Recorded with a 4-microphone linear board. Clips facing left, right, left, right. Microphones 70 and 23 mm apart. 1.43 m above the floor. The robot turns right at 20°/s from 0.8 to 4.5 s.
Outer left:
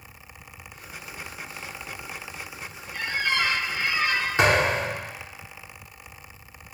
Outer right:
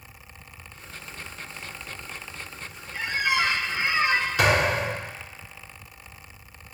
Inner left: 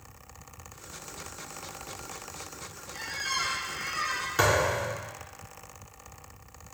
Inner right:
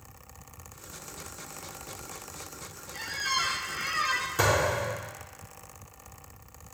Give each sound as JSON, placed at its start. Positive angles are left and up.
{"t": 2.9, "sound": "a squeak", "side_deg": -10, "distance_m": 0.6}
{"t": 4.4, "sound": "a thud", "side_deg": 35, "distance_m": 3.0}